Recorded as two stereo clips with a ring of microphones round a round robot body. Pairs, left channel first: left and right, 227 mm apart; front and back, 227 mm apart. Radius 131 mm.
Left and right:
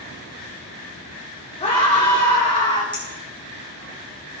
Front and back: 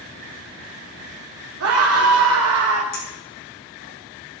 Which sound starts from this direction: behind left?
A scream, at 1.6 s.